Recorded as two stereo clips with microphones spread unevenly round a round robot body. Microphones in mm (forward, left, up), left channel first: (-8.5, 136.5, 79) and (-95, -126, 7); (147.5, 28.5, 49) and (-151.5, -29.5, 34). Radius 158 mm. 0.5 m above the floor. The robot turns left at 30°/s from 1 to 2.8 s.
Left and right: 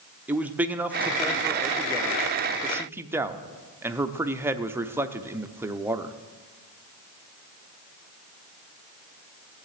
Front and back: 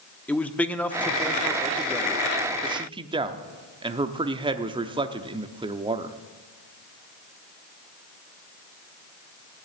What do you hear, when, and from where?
0.3 s a man speaking: 75° right, 0.7 m; by 6.2 s 130° right, 0.7 m